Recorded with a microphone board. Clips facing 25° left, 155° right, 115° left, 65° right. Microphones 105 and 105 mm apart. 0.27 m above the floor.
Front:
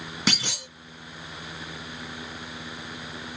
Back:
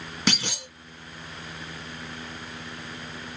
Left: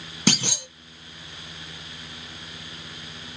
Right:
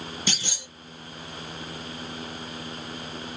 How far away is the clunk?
About 0.8 m.